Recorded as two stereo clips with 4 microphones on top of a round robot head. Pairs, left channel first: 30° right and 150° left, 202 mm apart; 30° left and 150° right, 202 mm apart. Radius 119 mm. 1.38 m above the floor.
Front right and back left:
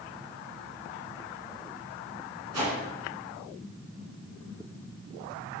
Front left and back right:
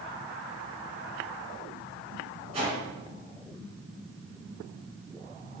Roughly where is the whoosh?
Behind left.